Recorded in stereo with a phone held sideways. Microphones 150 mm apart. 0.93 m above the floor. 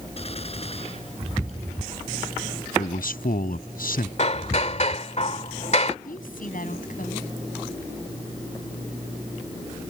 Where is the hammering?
50° left (ahead or behind).